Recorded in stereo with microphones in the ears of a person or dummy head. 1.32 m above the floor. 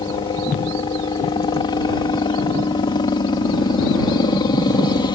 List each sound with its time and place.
0.0 s a helicopter: 25° left (ahead or behind)